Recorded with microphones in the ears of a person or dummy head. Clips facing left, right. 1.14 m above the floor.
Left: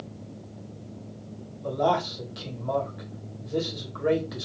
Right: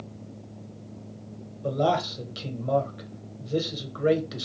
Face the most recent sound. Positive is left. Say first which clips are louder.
# even
turn(degrees=-40)  # may be behind; listen again after turning